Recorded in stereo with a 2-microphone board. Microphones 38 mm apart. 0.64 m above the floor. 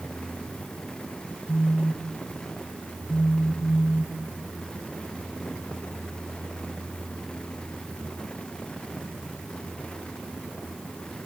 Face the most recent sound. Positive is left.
turn(degrees=50)  # may be behind; listen again after turning